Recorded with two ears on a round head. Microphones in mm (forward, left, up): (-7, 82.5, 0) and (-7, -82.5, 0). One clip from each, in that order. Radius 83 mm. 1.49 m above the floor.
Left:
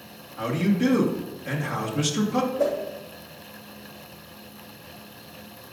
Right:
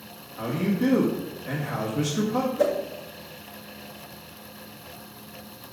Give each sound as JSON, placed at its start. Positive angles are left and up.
{"t": 0.4, "sound": "a man speaking", "side_deg": 35, "distance_m": 2.0}
{"t": 2.6, "sound": "a whoosh", "side_deg": -85, "distance_m": 3.0}